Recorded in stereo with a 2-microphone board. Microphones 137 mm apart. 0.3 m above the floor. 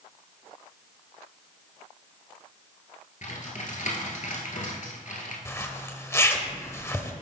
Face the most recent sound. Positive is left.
turn(degrees=20)  # may be behind; listen again after turning